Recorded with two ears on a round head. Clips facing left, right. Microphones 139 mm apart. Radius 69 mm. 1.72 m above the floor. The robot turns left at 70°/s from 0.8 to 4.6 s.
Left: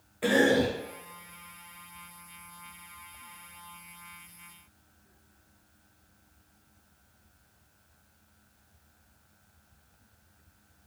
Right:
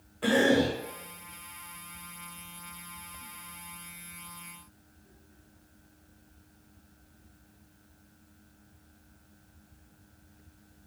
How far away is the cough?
About 1.2 m.